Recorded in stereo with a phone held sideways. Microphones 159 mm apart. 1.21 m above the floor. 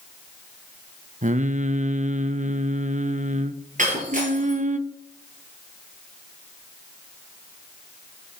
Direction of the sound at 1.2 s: 50° right (ahead or behind).